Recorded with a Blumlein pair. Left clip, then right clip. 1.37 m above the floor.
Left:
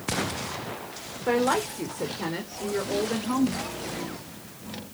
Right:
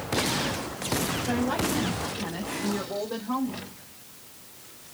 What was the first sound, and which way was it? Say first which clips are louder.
A woman speaking: left 8 dB; 55° left.